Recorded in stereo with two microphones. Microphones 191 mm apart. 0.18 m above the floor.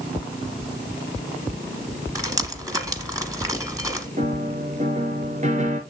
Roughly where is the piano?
Right.